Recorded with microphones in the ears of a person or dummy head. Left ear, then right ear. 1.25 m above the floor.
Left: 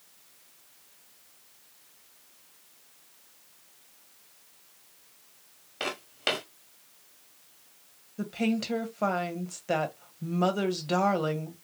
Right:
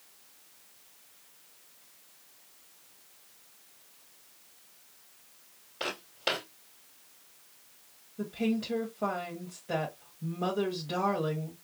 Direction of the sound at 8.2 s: 55° left (ahead or behind).